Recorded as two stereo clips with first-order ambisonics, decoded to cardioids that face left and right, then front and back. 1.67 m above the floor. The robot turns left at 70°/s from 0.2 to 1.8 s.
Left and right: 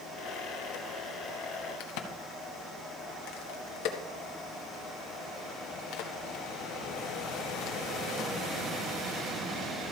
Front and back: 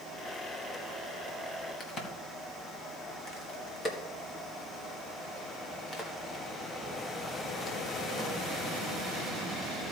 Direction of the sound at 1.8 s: 70° left.